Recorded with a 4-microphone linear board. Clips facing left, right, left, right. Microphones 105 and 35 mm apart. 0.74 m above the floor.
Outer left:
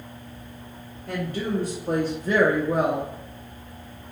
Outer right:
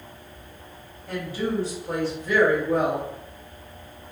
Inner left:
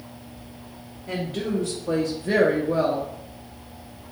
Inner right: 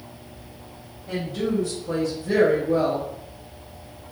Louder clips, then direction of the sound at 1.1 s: Even, inner right 1 dB; 50° left (ahead or behind).